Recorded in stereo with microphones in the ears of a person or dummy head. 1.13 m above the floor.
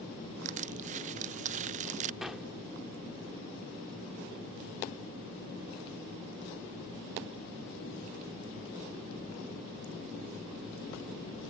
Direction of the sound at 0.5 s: 35° right (ahead or behind).